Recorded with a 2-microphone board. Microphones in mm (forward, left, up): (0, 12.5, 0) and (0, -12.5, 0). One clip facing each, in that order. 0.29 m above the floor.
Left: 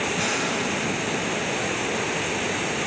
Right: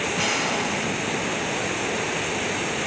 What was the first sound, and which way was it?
An explosion, 40° right (ahead or behind).